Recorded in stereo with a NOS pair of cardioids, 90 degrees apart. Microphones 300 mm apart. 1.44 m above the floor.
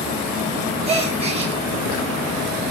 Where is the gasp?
20° right, 0.9 m.